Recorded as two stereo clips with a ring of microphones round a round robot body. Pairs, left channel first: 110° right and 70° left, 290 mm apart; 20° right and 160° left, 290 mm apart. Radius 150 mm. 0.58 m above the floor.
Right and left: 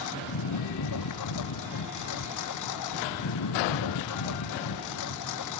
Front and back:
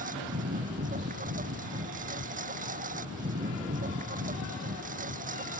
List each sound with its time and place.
0.0 s a lawn mower: 140° right